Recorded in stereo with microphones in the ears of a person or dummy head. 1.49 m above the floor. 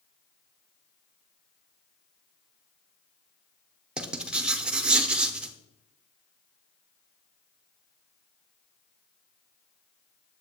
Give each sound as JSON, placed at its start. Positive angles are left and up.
{"t": 4.0, "sound": "writing", "side_deg": -5, "distance_m": 0.7}